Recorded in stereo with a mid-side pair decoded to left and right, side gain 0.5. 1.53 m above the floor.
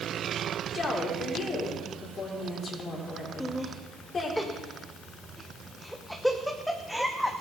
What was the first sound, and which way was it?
A woman speaking, 40° left.